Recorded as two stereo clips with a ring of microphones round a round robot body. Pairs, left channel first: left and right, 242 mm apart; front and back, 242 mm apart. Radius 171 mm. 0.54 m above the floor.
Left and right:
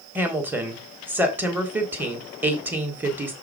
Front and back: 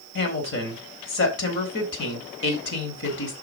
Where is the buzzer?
No buzzer in this recording.